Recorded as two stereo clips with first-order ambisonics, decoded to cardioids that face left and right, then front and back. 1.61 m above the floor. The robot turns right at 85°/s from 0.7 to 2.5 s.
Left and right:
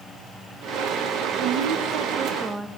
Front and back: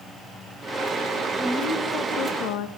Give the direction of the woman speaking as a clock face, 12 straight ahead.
3 o'clock.